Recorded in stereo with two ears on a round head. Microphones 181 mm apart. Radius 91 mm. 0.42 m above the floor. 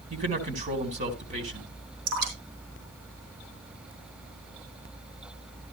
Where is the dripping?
80° right, 5 m.